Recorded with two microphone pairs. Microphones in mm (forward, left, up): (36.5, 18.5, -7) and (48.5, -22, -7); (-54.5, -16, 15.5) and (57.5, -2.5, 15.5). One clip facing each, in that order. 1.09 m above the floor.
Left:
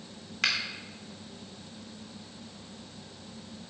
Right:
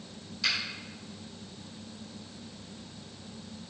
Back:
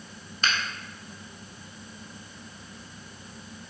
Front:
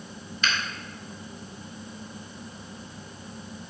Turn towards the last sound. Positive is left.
turn(degrees=135)